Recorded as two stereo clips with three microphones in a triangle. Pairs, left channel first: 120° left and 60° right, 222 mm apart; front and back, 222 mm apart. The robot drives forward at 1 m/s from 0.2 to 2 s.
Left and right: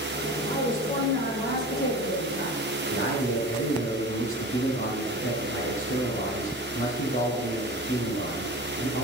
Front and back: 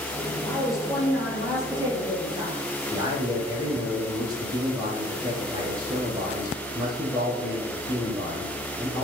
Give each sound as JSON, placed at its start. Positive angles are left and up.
{"t": 0.4, "sound": "a woman speaking", "azimuth_deg": 85, "distance_m": 4.0}
{"t": 2.9, "sound": "a man speaking", "azimuth_deg": 105, "distance_m": 4.5}